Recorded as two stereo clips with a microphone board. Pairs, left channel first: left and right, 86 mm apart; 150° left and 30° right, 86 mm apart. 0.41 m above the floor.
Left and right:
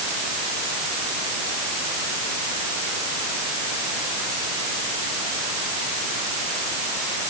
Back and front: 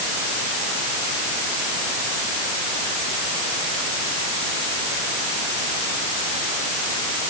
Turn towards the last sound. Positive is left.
No sound to turn to.